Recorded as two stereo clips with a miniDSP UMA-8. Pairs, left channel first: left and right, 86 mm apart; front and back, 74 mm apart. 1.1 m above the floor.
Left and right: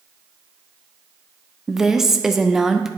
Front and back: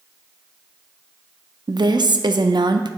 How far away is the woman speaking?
About 0.5 m.